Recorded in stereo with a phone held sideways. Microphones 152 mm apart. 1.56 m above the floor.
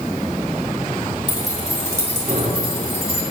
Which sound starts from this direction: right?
Keys jangling, at 1.3 s.